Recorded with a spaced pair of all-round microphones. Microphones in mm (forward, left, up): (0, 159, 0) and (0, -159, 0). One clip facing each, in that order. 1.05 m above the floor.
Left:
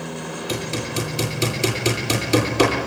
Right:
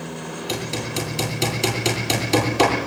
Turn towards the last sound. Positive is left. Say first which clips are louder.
# left 1 dB
turn(degrees=5)  # may be behind; listen again after turning